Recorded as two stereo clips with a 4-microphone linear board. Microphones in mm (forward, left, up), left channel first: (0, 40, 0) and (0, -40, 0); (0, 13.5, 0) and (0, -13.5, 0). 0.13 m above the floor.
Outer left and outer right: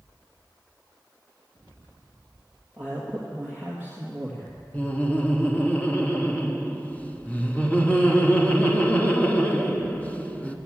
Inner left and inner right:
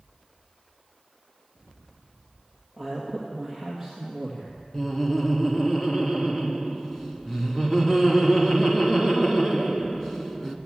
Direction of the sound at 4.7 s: 20° left (ahead or behind).